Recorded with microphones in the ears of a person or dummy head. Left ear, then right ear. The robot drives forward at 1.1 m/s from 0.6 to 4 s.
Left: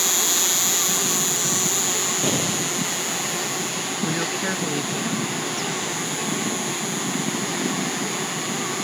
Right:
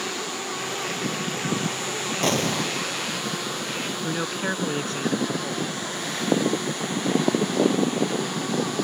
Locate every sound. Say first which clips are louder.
0.0 s an insect: left 8 dB; 60° left (ahead or behind); by 8.8 s 25° left (ahead or behind)
2.2 s an explosion: even; 65° right (ahead or behind); by 2.8 s 60° right (ahead or behind)
4.0 s a man speaking: left 3 dB; 30° right (ahead or behind)